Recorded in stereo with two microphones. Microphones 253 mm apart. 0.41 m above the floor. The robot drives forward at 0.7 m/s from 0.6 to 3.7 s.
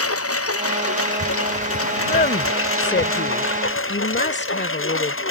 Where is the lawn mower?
70° left (ahead or behind); by 5.3 s 60° left (ahead or behind).